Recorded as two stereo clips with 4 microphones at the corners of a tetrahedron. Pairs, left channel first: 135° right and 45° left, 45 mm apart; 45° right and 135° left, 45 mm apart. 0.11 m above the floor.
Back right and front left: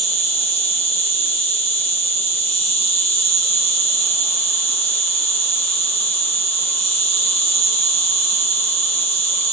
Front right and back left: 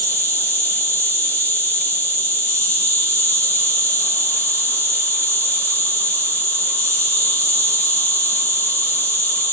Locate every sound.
0.0 s an insect: 80° right, 3 m